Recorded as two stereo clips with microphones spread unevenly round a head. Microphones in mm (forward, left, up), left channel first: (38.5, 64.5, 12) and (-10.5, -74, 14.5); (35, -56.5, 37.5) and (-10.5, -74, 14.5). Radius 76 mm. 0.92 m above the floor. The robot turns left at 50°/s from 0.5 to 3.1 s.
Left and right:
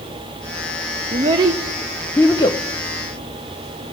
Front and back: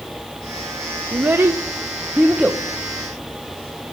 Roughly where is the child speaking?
Behind.